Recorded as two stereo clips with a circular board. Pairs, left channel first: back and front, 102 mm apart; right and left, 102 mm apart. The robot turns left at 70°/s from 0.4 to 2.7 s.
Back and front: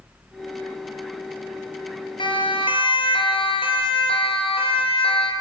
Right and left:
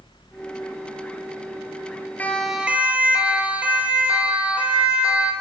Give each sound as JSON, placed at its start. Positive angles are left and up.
{"t": 2.2, "sound": "a siren", "azimuth_deg": -160, "distance_m": 2.5}